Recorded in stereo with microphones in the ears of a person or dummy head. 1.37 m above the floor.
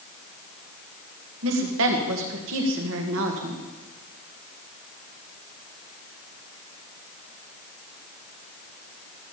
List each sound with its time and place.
1.4 s a woman speaking: 70° right (ahead or behind), 1.8 m